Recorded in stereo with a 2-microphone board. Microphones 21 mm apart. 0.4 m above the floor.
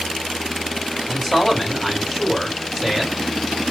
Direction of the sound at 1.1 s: Centre (ahead or behind).